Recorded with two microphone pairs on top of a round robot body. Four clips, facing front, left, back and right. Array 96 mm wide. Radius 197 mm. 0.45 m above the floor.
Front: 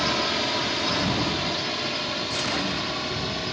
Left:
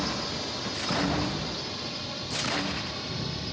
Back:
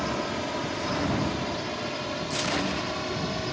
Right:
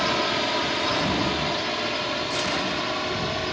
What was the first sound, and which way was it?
A drone, 65° right.